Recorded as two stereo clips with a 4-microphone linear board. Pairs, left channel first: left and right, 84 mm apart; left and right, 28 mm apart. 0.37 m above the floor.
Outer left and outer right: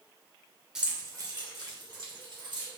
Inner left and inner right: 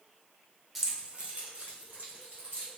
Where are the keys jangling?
5° right (ahead or behind), 0.7 m; by 2.7 s 65° right (ahead or behind), 2.5 m.